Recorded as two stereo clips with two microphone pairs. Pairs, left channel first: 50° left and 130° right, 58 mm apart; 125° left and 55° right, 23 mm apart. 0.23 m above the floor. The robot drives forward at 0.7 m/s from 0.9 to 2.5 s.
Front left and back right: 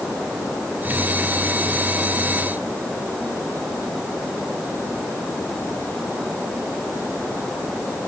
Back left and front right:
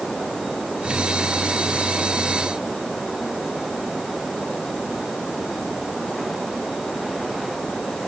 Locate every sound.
Only background noise.